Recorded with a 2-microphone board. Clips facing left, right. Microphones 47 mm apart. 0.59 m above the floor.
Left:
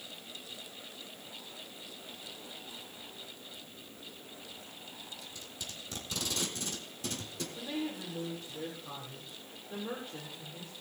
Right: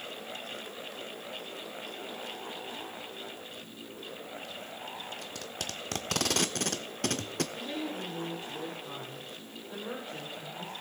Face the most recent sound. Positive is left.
turn(degrees=0)  # may be behind; listen again after turning